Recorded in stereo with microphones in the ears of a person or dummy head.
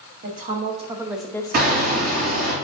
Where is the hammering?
45° right (ahead or behind), 2 m.